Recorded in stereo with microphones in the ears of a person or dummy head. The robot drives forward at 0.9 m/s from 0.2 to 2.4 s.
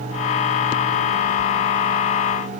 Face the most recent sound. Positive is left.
No sound to turn to.